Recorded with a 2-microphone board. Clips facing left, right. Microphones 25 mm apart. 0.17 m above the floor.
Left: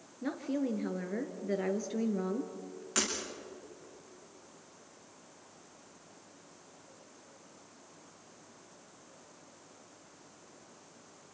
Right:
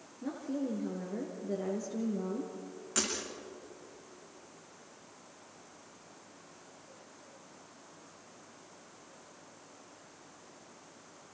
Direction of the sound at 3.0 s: 20° left (ahead or behind).